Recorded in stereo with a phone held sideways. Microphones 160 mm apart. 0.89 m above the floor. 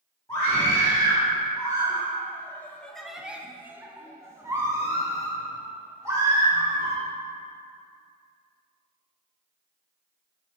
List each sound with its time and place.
0.3 s a scream: 20° left (ahead or behind), 1.8 m; by 7.0 s 20° right (ahead or behind), 3 m